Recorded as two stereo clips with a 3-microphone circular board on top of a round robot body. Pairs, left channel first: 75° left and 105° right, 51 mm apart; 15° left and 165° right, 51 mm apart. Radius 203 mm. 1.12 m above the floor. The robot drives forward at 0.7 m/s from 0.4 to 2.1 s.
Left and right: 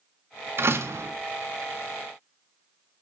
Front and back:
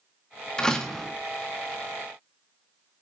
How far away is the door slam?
About 1.8 m.